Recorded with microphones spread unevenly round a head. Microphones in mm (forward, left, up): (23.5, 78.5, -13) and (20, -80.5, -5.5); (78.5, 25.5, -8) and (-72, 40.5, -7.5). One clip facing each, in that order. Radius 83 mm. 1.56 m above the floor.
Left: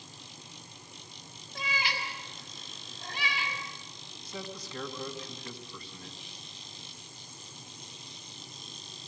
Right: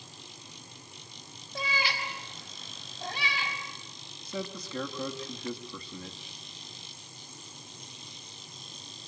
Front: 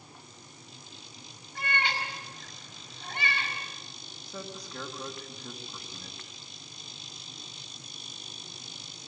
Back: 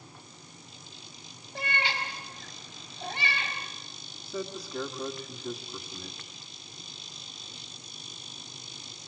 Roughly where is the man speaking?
Right.